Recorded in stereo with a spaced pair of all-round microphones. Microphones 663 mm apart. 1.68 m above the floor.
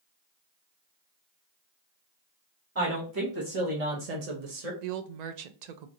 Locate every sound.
2.8 s a woman speaking: 20° right (ahead or behind), 1.2 m; by 4.7 s 60° right (ahead or behind), 0.9 m
4.8 s a woman speaking: 90° right, 0.6 m